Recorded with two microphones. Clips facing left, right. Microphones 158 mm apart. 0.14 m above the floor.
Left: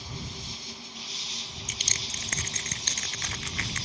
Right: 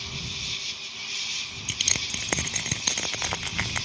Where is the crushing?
70° right (ahead or behind).